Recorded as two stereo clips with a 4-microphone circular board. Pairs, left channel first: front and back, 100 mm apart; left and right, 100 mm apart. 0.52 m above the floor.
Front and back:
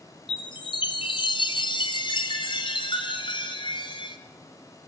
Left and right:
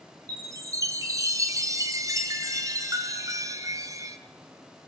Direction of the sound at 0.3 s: 35° right.